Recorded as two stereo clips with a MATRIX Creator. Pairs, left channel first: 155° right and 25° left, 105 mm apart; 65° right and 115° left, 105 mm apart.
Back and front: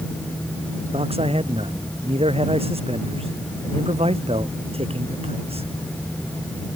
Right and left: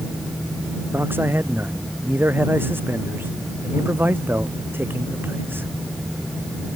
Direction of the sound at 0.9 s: 40° left.